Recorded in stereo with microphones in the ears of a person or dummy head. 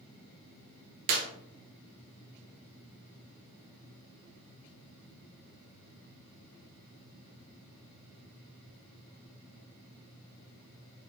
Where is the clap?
50° right (ahead or behind), 0.9 m.